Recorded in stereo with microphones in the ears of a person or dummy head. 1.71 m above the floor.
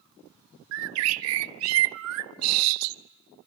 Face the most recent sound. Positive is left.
turn(degrees=-75)  # may be behind; listen again after turning